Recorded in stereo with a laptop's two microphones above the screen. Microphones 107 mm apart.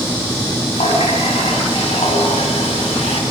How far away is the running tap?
About 6 m.